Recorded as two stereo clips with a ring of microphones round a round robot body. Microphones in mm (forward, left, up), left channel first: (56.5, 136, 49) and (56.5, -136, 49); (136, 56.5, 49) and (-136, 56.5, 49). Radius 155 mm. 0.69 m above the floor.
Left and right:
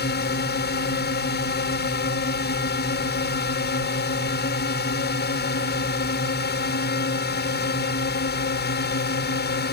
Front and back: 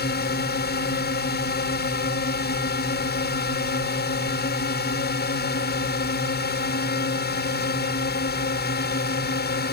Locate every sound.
0.0 s a drone: 45° left